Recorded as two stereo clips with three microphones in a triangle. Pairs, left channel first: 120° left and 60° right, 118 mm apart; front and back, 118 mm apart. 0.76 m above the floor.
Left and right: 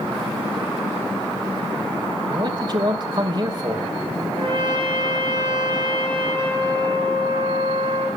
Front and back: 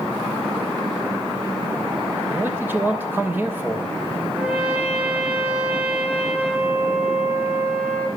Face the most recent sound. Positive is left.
turn(degrees=-105)